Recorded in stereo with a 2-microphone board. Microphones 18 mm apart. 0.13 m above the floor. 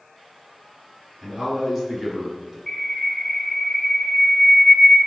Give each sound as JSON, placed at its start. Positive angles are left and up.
{"t": 1.2, "sound": "a man speaking", "side_deg": -10, "distance_m": 2.0}
{"t": 2.7, "sound": "a bird", "side_deg": 10, "distance_m": 1.5}